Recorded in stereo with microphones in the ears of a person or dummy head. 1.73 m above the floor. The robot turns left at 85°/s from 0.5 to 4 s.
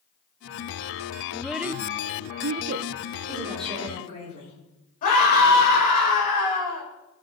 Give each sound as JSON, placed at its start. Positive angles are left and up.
{"t": 1.3, "sound": "a child speaking", "side_deg": 10, "distance_m": 0.6}
{"t": 3.3, "sound": "a woman speaking", "azimuth_deg": -155, "distance_m": 6.0}
{"t": 5.0, "sound": "a scream", "side_deg": 40, "distance_m": 6.0}